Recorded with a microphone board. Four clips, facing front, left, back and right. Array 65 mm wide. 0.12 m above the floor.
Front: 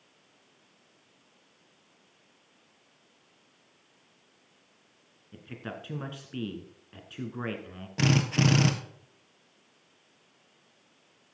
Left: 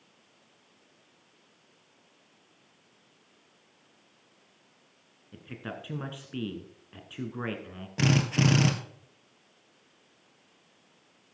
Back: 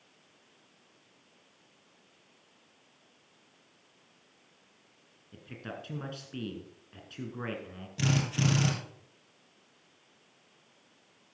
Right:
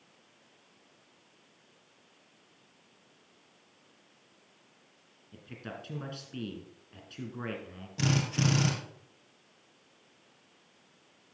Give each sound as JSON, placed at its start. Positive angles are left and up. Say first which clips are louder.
{"t": 5.3, "sound": "a man speaking", "louder": "left 4 dB, front 2 dB", "azimuth_deg": 55, "distance_m": 1.7}
{"t": 8.0, "sound": "a drill", "louder": "left 4 dB, front 5 dB", "azimuth_deg": 35, "distance_m": 1.8}